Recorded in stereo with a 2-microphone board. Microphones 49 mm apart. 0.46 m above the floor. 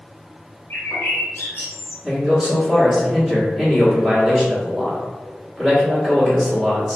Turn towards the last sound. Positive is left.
turn(degrees=-10)  # may be behind; listen again after turning